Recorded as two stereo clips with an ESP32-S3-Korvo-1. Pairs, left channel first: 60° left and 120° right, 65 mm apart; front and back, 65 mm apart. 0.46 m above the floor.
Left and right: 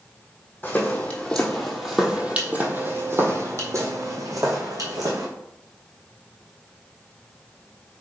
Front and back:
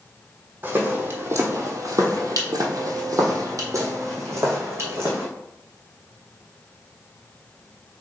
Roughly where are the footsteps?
Behind left.